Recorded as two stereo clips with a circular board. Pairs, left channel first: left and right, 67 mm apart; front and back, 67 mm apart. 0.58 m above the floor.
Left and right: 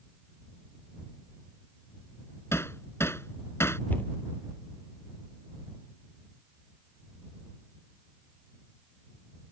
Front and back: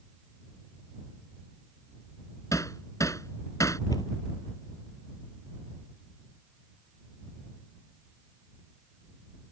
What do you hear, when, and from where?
2.5 s hammering: 40° left
3.9 s a cupboard door: 25° left